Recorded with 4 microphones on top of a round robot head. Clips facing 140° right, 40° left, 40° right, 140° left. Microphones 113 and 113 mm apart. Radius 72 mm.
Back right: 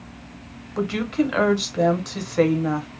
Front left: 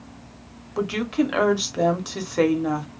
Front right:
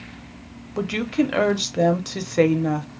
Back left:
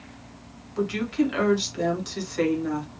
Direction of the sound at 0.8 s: 45° right.